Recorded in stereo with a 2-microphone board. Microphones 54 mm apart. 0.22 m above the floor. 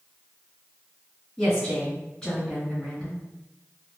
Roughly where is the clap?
No clap in this recording.